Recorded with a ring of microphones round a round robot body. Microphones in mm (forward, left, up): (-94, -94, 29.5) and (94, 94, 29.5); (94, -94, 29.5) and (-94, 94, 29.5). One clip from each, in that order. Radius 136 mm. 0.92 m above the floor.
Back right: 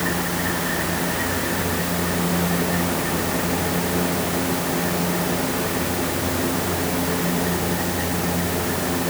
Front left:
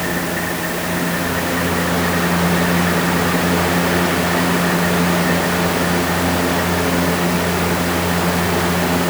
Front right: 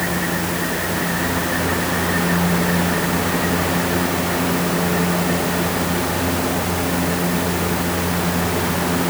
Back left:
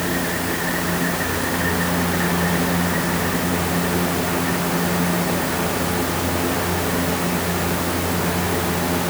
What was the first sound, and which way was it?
Only background noise.